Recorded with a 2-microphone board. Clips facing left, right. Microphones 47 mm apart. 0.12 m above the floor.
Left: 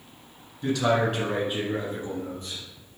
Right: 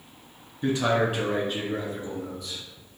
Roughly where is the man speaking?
Right.